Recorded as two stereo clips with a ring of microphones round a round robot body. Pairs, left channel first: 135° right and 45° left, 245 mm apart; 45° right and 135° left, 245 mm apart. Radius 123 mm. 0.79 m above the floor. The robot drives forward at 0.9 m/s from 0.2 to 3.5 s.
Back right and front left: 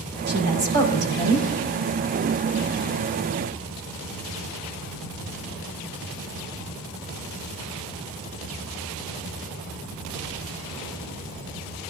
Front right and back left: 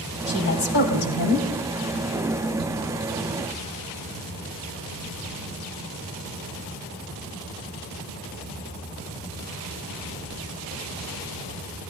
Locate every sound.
0.3 s a woman speaking: straight ahead, 5 m